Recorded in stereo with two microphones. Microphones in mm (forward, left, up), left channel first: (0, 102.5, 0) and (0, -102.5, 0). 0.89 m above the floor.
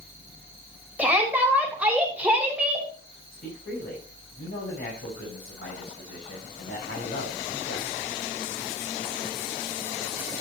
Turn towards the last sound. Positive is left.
turn(degrees=70)  # may be behind; listen again after turning